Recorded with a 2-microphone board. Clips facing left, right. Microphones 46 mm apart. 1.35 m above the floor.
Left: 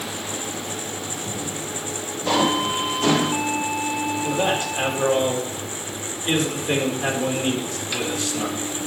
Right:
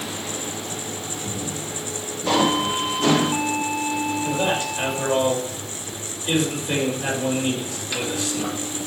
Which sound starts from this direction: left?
A man speaking, at 4.2 s.